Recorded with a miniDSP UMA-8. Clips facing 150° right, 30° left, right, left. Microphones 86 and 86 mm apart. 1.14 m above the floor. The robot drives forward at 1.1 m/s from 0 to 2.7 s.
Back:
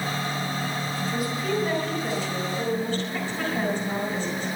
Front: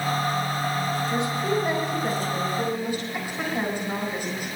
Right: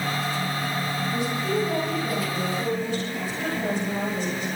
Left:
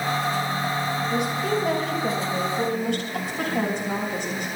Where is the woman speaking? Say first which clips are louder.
Even, even; 90° left, 6.5 m; by 4.5 s 105° left, 7 m.